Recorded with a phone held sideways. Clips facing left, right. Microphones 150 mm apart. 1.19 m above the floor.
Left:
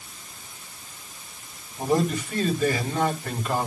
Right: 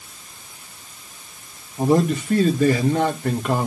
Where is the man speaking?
70° right (ahead or behind), 1.9 m.